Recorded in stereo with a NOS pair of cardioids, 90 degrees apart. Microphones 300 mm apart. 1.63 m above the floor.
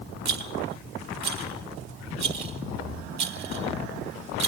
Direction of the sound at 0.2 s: 60° right.